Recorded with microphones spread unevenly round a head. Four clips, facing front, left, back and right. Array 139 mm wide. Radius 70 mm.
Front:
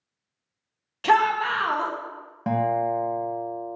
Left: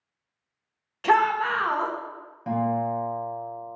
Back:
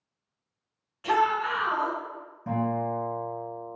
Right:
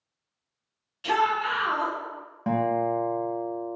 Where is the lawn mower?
I don't hear a lawn mower.